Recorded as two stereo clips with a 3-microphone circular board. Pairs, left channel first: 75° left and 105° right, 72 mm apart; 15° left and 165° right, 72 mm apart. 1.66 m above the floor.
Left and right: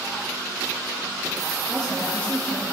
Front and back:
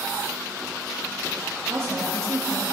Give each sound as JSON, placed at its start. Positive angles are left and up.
{"t": 1.7, "sound": "a woman speaking", "azimuth_deg": 150, "distance_m": 2.5}